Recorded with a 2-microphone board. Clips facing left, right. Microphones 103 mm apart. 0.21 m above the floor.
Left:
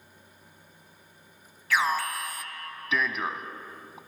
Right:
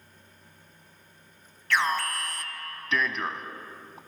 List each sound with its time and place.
1.7 s an alarm: 5° left (ahead or behind), 0.8 m